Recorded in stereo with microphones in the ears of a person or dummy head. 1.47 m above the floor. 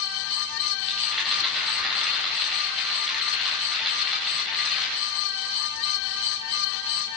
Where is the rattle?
Centre (ahead or behind), 10 m.